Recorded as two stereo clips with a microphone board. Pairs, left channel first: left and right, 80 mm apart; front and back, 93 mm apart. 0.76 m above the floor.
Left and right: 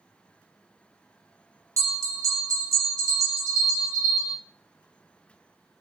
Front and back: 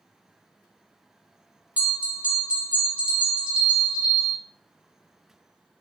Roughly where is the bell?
Right.